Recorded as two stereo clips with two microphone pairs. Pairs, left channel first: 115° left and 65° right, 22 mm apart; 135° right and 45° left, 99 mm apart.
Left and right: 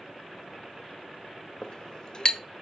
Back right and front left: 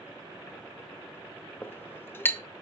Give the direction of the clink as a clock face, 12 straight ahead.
7 o'clock.